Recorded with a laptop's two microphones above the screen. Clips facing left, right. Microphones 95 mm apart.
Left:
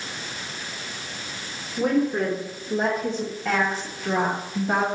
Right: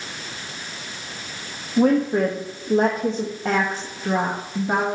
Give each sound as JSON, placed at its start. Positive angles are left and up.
{"t": 1.8, "sound": "a woman speaking", "side_deg": -80, "distance_m": 1.2}